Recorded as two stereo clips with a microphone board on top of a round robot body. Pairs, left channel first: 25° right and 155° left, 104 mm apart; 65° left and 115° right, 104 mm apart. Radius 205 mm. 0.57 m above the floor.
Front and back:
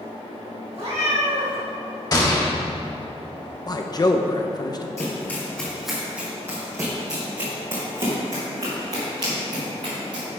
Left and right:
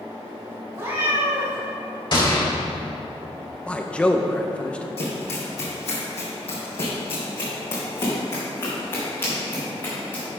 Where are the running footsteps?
40° left, 2.0 m; by 10.2 s 135° left, 5 m.